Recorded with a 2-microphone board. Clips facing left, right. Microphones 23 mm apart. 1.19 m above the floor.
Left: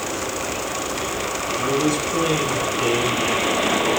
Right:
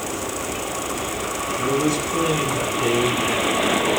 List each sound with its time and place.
1.6 s a man speaking: 5° left (ahead or behind), 6.5 m; by 4.0 s 20° left (ahead or behind), 8.5 m